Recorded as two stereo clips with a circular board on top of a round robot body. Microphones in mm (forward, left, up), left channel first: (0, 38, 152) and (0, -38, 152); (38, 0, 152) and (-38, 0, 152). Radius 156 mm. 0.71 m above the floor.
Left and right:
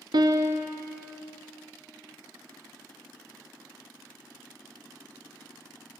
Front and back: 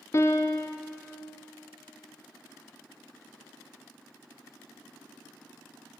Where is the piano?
60° right, 0.5 m.